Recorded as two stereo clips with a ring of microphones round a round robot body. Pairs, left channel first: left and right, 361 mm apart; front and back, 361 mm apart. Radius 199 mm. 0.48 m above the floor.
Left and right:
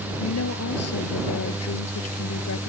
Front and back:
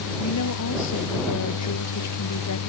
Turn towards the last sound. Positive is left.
turn(degrees=40)